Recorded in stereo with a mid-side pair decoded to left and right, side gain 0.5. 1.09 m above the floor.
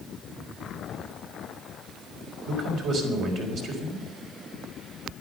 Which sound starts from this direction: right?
A man speaking, at 2.5 s.